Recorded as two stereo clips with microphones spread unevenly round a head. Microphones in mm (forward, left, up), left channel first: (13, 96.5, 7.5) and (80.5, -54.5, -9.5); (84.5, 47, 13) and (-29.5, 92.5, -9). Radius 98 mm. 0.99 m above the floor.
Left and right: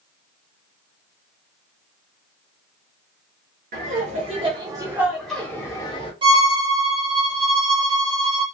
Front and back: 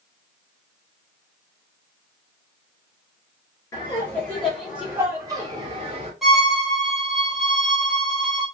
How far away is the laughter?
About 1.2 m.